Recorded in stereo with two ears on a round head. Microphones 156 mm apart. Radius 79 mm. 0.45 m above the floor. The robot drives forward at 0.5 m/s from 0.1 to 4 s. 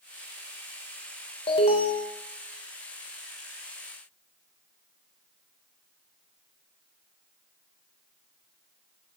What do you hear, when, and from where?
1.5 s an alarm: 35° left (ahead or behind), 1.4 m; by 2.1 s 30° left (ahead or behind), 1.6 m